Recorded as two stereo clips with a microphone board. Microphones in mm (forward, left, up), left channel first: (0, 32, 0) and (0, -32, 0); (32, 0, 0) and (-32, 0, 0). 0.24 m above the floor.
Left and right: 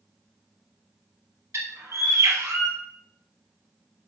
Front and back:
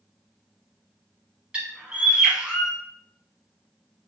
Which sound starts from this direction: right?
A bird, at 1.5 s.